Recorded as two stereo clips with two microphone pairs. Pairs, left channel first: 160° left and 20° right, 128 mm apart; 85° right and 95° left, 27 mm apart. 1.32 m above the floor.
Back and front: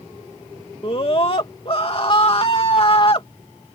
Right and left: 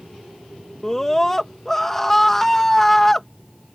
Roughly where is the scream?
Behind.